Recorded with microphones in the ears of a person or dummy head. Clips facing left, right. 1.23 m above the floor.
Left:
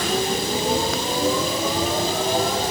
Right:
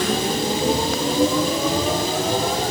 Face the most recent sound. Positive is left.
turn(degrees=-55)  # may be behind; listen again after turning